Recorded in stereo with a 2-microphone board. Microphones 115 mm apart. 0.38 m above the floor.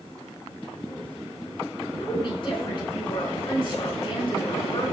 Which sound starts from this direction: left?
A woman speaking, at 2.0 s.